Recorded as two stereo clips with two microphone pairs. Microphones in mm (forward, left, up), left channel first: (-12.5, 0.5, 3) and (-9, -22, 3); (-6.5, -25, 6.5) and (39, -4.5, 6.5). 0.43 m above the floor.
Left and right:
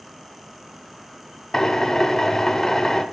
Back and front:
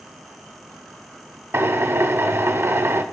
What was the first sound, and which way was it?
A drill, 40° left.